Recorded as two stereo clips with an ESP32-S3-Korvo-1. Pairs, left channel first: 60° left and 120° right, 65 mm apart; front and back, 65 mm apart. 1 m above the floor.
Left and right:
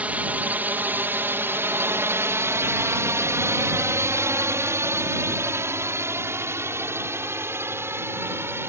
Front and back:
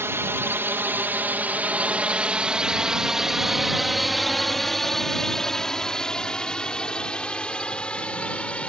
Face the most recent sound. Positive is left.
turn(degrees=-70)